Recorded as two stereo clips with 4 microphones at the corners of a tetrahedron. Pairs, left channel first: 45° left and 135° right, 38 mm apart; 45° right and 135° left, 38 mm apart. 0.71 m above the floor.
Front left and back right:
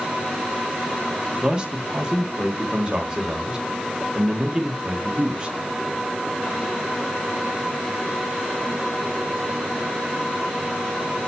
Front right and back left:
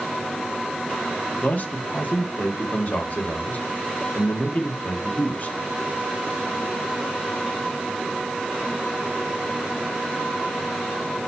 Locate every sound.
1.4 s a man speaking: 70° right, 1.5 m